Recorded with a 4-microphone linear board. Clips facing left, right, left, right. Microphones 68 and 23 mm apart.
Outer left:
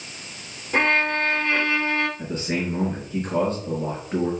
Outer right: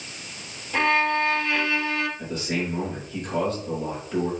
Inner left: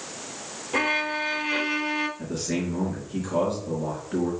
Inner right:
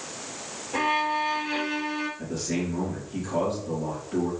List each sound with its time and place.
0.7 s a violin: 40° left (ahead or behind), 1.0 m
2.2 s a man speaking: 35° left (ahead or behind), 4.5 m